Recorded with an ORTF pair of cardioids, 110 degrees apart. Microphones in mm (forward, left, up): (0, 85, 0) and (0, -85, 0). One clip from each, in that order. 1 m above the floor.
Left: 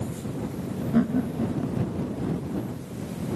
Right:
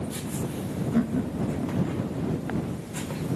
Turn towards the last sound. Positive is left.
turn(degrees=15)